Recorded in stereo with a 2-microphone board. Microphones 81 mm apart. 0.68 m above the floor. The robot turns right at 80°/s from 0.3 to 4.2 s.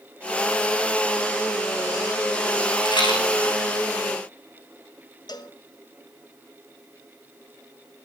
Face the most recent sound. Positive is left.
turn(degrees=60)  # may be behind; listen again after turning